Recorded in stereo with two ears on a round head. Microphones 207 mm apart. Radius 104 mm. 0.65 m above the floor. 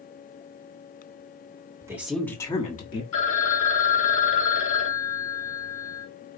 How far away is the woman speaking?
About 1.4 m.